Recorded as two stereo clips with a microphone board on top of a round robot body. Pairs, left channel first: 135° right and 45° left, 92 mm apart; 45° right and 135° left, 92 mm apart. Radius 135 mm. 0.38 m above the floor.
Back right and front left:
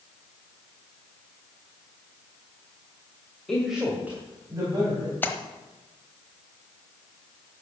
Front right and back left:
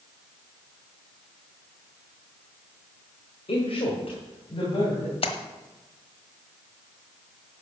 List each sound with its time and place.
3.5 s a woman speaking: 50° right, 2.5 m; by 5.1 s 5° right, 3.5 m
5.2 s a splash: 65° right, 1.2 m